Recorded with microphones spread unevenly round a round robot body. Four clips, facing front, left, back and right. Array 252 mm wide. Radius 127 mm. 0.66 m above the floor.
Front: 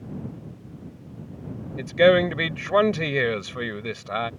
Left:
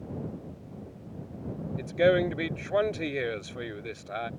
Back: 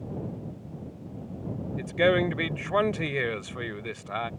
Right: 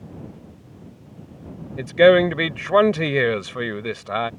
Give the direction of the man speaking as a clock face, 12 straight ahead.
2 o'clock.